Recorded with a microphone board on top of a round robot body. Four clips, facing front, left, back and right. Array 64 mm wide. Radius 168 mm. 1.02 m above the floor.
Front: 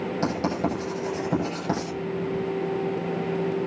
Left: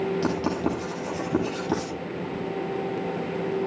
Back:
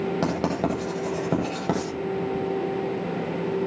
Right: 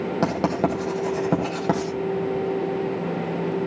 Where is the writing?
110° right, 9 m.